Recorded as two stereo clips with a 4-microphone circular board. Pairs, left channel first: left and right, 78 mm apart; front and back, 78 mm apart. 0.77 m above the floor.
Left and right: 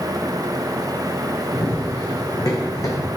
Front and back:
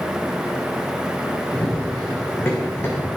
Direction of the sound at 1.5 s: 60° left.